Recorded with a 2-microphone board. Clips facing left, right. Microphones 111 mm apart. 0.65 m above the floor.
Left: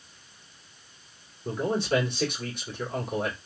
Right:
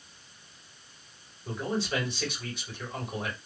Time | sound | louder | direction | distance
1.4 | a man speaking | left 5 dB | 55° left (ahead or behind) | 2 m